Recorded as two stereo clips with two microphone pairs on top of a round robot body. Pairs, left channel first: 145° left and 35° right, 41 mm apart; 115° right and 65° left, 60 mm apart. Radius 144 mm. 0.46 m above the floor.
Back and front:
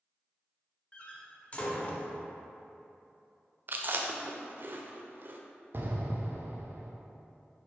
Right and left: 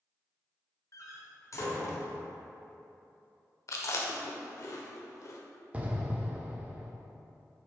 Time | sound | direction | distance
0.9 | a door slam | 155° right | 1.1 m
3.7 | chewing | 80° right | 0.5 m
5.7 | an explosion | straight ahead | 0.9 m